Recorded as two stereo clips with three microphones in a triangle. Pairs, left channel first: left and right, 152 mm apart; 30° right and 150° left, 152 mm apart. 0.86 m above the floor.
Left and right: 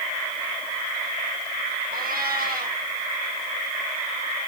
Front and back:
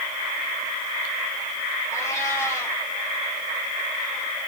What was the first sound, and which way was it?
A cat meowing, 100° right.